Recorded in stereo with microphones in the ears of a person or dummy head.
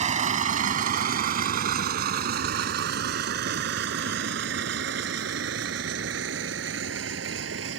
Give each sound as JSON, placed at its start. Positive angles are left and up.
{"t": 0.0, "sound": "a vehicle", "side_deg": -40}